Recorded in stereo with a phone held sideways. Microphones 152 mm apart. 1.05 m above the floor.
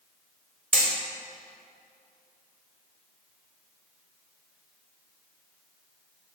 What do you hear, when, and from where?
0.7 s hammering: centre (ahead or behind), 4 m